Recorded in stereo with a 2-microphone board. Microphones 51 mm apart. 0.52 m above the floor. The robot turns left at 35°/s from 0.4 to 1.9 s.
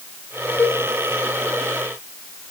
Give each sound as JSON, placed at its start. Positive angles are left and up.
{"t": 0.6, "sound": "a cowbell", "side_deg": 40, "distance_m": 1.6}